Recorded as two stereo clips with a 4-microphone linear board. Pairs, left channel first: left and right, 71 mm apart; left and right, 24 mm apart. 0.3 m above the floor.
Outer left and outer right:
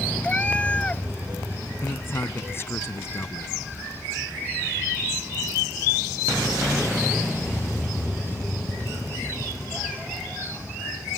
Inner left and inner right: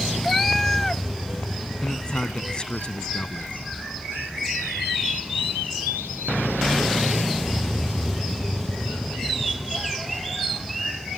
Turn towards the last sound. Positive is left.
turn(degrees=35)  # may be behind; listen again after turning